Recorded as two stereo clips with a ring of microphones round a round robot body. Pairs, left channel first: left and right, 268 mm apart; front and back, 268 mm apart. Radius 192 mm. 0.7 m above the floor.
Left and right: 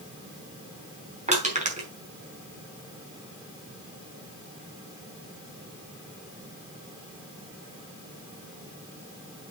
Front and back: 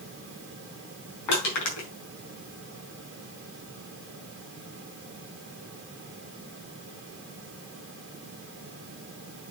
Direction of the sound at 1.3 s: 25° right.